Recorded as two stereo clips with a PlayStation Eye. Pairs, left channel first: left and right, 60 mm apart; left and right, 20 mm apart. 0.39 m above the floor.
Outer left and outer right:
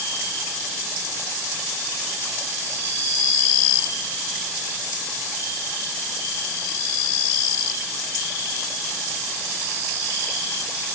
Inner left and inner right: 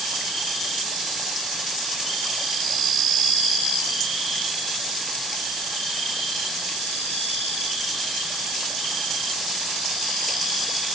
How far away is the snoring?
I don't hear snoring.